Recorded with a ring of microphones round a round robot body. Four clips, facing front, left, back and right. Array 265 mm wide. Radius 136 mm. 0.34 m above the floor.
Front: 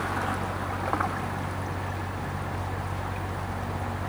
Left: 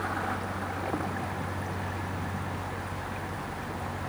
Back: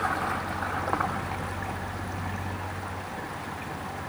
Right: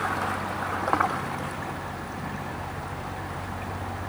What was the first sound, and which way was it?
Only background noise.